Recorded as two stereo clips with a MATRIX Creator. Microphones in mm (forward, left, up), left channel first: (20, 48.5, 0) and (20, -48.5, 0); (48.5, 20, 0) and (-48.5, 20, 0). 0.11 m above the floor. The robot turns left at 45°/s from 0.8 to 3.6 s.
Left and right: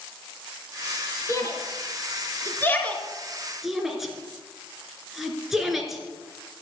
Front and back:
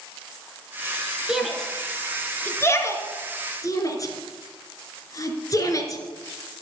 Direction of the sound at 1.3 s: 100° left.